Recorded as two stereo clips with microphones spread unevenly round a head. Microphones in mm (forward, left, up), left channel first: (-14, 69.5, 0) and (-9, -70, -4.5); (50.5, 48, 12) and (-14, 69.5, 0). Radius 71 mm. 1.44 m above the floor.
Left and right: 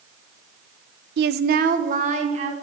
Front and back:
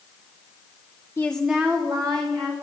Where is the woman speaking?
85° right, 0.5 m; by 2.5 s 130° right, 1.7 m.